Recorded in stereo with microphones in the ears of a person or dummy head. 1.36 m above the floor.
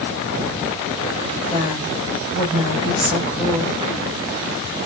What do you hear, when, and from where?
1.5 s a woman speaking: 30° left (ahead or behind), 5 m